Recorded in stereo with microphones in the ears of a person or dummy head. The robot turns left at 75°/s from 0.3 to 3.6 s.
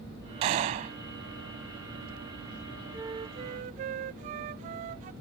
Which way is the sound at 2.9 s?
20° right.